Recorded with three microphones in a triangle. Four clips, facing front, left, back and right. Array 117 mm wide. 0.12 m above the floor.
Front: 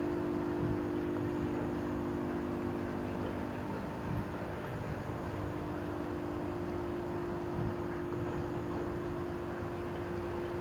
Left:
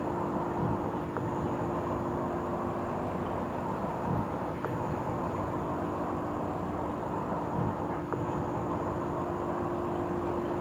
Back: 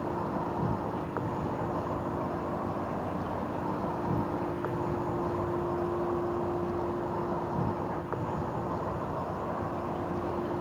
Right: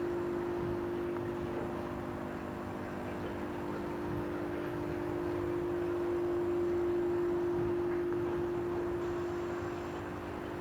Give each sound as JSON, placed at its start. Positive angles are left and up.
{"t": 0.0, "sound": "an insect", "azimuth_deg": 140}